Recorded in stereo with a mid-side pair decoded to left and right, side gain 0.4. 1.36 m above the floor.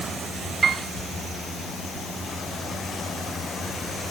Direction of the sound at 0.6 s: 60° right.